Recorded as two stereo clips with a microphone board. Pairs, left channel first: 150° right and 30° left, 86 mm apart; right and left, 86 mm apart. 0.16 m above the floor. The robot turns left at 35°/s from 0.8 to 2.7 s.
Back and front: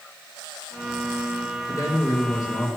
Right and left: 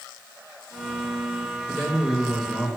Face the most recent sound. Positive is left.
turn(degrees=170)